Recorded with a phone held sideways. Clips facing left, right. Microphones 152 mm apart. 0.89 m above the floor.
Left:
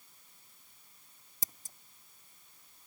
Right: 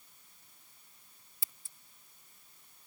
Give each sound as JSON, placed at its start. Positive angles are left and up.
{"t": 1.4, "sound": "scissors", "side_deg": 45}